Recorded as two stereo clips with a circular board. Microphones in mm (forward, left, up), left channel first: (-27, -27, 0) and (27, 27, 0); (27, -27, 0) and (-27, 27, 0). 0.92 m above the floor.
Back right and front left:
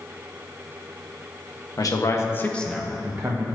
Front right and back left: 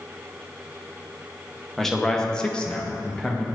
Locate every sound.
1.8 s a man speaking: 130° right, 0.9 m; by 3.5 s 30° left, 0.7 m